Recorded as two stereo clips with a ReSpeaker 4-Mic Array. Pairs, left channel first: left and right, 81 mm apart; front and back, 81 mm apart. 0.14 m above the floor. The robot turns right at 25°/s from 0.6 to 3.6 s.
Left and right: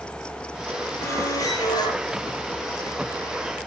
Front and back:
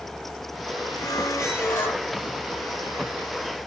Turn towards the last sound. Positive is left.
turn(degrees=105)